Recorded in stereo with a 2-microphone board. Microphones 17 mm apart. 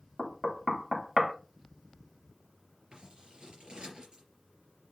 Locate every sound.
0.2 s knocking: 10° right (ahead or behind), 0.8 m
2.9 s scissors: 55° right (ahead or behind), 3.5 m